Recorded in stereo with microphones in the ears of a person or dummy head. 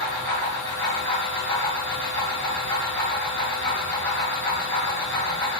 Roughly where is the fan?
Centre.